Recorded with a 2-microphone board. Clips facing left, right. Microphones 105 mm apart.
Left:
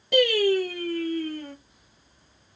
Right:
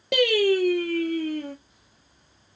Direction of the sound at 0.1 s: 75° right (ahead or behind).